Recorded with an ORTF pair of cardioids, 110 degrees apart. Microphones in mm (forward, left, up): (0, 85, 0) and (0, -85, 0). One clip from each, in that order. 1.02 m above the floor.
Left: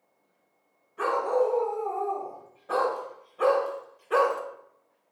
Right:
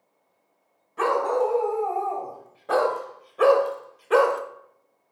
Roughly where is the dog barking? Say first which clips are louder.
Right 3 dB; ahead right.